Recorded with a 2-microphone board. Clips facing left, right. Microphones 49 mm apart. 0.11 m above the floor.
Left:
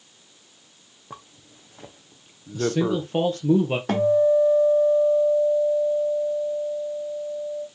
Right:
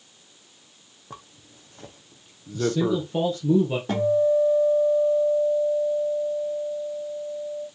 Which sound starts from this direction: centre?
A zipper, at 1.1 s.